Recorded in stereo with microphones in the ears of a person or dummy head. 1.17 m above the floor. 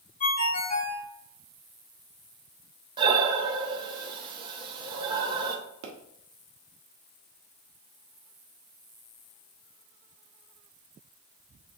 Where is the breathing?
25° right (ahead or behind), 1.2 m.